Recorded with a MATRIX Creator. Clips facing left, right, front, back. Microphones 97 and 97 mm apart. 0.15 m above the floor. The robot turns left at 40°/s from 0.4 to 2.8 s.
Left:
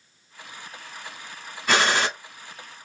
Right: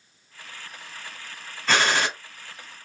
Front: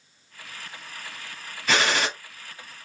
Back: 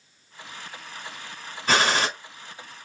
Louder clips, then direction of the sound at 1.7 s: Left 1 dB, back 2 dB; 160° left.